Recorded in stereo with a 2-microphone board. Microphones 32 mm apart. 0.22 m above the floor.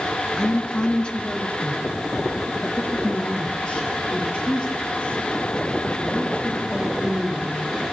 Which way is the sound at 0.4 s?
30° left (ahead or behind).